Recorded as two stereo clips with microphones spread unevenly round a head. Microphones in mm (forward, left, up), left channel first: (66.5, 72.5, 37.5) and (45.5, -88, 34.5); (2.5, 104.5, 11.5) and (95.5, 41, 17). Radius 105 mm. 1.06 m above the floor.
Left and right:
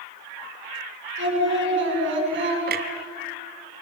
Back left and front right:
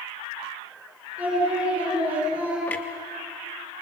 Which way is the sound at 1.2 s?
115° right.